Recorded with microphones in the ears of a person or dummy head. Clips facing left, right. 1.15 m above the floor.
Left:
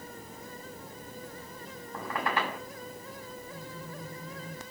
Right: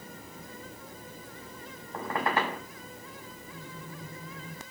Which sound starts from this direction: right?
A squeak, at 1.9 s.